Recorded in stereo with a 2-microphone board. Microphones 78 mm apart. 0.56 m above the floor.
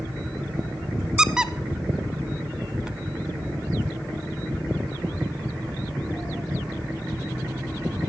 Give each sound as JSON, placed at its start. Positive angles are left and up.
{"t": 1.2, "sound": "a squeak", "side_deg": -10, "distance_m": 0.7}